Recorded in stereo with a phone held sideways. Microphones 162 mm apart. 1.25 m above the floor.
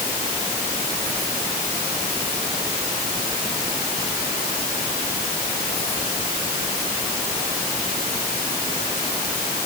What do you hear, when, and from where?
Only background noise.